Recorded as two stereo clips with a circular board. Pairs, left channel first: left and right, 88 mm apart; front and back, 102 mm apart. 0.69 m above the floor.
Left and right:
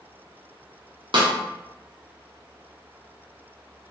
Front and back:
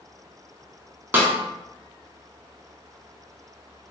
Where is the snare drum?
110° right, 0.8 m.